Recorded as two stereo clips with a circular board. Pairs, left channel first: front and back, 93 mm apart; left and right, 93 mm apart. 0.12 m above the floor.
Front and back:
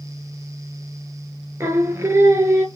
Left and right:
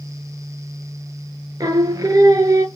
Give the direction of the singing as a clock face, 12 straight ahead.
4 o'clock.